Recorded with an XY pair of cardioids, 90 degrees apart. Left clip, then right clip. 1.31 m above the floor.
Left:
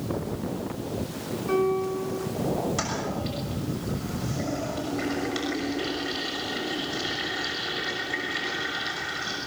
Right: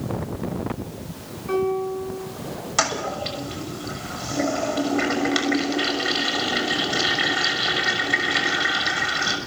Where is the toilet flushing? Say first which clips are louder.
Right 6 dB; 70° right, 6.5 m.